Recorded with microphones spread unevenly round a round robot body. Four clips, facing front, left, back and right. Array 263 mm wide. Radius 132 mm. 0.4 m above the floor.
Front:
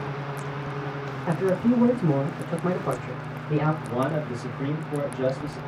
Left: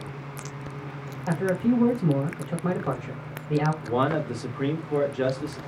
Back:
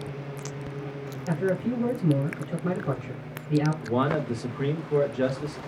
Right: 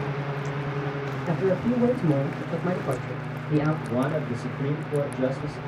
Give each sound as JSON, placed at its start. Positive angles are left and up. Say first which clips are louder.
{"t": 1.3, "sound": "a man speaking", "louder": "left 1 dB, front 4 dB", "azimuth_deg": 25, "distance_m": 0.9}
{"t": 3.8, "sound": "a man speaking", "louder": "left 1 dB, back 1 dB", "azimuth_deg": 170, "distance_m": 0.9}